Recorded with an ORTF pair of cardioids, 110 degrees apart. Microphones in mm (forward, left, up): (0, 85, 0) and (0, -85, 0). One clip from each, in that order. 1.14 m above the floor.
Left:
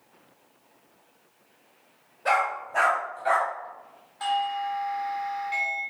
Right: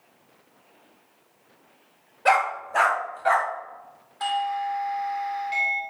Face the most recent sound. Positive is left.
turn(degrees=-15)